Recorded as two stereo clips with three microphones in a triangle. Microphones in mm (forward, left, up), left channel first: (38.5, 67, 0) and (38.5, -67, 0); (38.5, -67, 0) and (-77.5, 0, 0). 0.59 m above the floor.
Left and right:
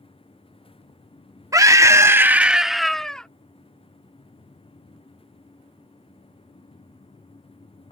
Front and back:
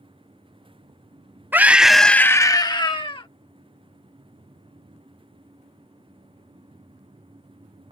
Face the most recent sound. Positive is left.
turn(degrees=10)